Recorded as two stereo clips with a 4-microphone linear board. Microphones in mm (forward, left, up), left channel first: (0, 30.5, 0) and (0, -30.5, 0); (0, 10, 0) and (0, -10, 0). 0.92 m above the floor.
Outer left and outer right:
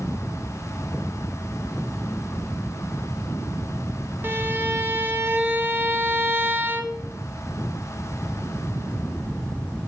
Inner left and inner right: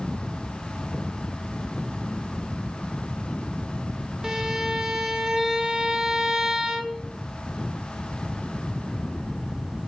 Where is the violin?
35° right (ahead or behind), 0.9 m.